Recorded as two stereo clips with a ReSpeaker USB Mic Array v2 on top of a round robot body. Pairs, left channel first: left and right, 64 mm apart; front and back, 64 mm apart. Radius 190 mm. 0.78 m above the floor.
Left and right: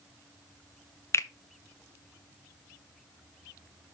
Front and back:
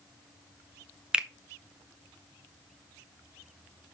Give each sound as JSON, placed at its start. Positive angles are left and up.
{"t": 1.1, "sound": "a finger snap", "azimuth_deg": 105, "distance_m": 1.0}